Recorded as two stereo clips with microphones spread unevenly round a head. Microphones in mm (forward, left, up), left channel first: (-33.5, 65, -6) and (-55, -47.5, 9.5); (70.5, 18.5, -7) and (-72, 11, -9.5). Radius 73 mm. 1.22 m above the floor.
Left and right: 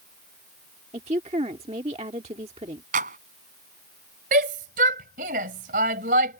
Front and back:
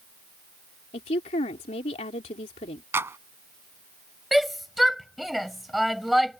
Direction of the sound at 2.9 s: 100° right.